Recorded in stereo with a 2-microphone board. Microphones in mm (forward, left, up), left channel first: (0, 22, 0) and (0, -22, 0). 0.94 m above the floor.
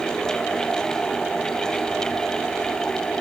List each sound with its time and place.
Only background noise.